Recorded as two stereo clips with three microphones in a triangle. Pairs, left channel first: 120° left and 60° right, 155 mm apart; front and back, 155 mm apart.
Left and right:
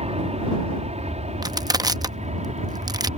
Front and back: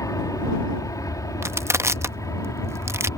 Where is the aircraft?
55° right; by 3.2 s 60° right.